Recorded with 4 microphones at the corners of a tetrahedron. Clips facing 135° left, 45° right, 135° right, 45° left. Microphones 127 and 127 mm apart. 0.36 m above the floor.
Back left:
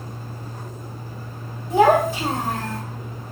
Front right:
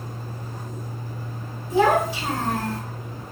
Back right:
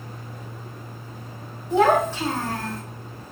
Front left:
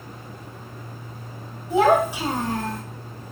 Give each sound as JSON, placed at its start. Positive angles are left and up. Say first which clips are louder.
{"t": 1.7, "sound": "a child speaking", "louder": "back left 3 dB, front left 1 dB", "azimuth_deg": 130, "distance_m": 1.3}